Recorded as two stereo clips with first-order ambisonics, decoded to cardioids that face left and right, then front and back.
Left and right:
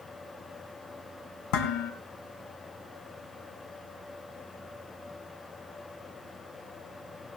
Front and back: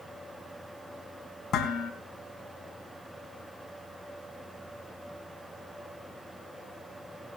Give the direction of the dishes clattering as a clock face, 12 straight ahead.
10 o'clock.